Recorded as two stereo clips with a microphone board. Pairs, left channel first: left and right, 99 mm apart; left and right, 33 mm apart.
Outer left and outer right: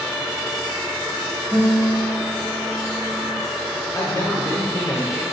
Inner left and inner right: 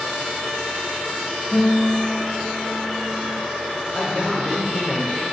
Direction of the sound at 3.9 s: 30° left (ahead or behind).